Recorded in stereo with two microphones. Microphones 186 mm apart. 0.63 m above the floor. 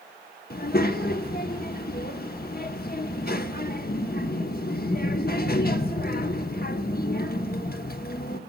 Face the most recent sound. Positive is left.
turn(degrees=55)  # may be behind; listen again after turning